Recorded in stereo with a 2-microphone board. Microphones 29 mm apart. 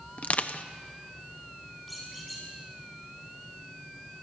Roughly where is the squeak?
Centre.